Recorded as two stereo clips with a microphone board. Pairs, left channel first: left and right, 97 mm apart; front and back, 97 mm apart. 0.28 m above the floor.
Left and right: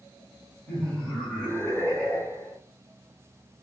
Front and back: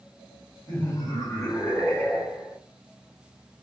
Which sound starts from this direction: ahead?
Laughter, at 0.7 s.